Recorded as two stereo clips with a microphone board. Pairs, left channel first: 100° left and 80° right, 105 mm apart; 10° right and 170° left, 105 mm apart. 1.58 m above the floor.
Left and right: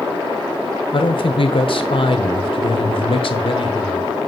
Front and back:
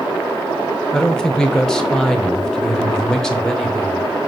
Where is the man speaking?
75° left, 1.1 m.